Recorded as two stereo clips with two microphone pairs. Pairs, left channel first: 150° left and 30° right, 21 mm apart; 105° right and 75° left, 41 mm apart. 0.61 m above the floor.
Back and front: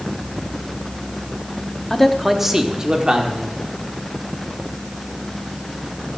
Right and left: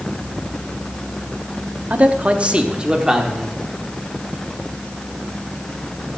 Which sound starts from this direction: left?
A man speaking, at 1.9 s.